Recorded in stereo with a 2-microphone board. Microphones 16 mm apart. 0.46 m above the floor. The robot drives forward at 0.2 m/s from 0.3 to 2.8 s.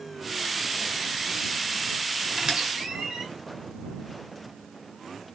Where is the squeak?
60° right (ahead or behind), 1.2 m.